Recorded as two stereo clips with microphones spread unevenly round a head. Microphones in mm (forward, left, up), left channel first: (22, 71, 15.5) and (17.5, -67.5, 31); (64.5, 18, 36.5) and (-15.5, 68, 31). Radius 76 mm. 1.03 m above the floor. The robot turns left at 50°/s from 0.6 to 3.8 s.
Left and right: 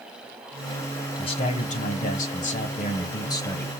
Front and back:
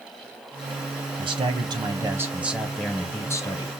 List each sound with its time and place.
1.2 s a man speaking: 135° left, 1.2 m; by 3.7 s 10° left, 1.2 m